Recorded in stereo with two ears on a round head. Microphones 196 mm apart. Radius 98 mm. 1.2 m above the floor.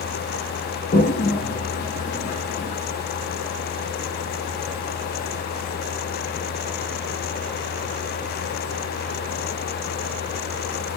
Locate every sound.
0.9 s a toilet flushing: 35° left (ahead or behind), 0.6 m